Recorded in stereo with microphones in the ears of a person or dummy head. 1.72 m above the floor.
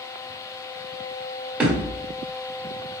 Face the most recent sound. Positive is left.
turn(degrees=-5)  # may be behind; listen again after turning